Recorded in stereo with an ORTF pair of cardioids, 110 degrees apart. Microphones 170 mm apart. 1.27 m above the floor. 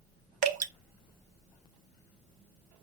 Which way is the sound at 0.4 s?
50° right.